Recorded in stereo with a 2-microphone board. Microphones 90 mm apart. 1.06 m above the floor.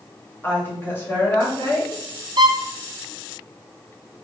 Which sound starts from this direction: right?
A violin, at 2.4 s.